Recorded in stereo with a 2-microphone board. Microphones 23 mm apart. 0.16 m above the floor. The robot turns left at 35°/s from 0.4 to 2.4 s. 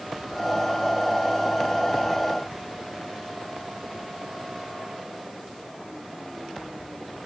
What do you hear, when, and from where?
Only background noise.